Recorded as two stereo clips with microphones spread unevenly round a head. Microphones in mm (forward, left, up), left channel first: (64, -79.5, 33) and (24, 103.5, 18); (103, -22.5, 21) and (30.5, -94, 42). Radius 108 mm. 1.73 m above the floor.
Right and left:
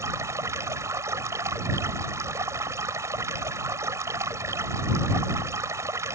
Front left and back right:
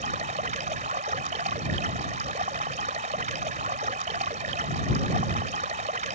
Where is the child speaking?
No child speaking in this recording.